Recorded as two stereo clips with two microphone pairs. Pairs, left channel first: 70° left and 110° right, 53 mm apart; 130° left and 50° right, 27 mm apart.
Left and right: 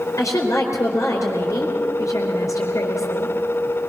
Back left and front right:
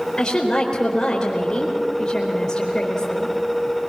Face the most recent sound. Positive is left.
turn(degrees=65)